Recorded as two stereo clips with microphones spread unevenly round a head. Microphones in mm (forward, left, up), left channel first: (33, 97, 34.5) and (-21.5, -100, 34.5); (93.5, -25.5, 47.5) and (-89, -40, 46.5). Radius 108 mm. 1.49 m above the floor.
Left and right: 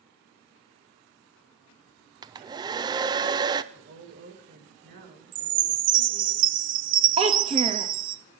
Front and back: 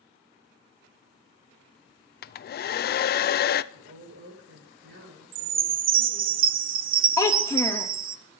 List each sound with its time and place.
2.2 s a hair dryer: 35° right, 0.5 m
3.7 s a woman speaking: 145° right, 5 m
5.3 s a chime: 145° right, 0.6 m
7.2 s a child speaking: 60° right, 0.9 m